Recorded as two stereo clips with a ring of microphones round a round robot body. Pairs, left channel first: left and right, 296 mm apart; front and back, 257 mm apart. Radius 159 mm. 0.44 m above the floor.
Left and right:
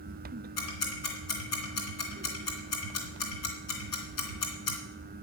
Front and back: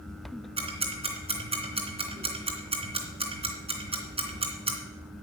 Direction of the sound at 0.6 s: 110° left.